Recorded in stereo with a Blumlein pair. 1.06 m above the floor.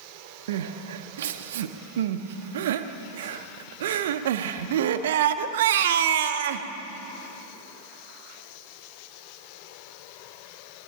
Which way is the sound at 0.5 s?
60° right.